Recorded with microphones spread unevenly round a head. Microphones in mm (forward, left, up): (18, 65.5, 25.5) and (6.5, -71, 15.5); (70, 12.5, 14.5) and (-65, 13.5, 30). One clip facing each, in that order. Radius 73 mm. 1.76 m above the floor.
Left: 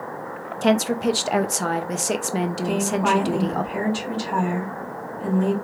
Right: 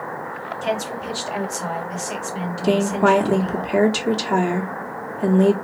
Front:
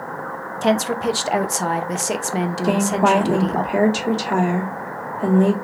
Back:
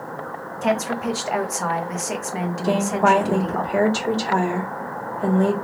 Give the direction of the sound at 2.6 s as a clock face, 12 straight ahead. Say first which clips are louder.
Right 8 dB, even; 3 o'clock.